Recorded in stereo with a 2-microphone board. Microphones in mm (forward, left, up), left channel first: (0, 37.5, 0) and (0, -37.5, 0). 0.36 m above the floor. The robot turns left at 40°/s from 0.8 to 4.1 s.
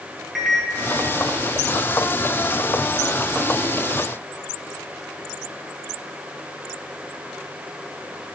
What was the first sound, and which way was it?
A microwave, 5° right (ahead or behind).